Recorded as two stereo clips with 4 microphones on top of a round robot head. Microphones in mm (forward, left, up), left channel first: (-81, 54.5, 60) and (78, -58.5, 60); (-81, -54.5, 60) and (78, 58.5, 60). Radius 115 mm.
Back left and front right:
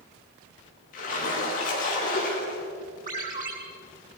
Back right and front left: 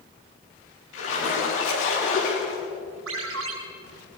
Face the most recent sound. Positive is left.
turn(degrees=15)